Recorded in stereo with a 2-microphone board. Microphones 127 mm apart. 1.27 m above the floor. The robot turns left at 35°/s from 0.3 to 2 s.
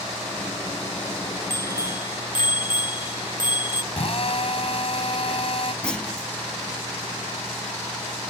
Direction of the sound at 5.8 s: 5° left (ahead or behind).